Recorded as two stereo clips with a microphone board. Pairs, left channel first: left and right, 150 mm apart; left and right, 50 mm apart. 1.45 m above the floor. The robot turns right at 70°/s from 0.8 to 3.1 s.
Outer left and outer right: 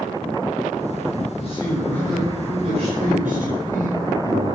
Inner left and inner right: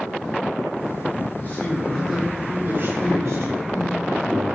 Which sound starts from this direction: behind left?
A man speaking, at 1.4 s.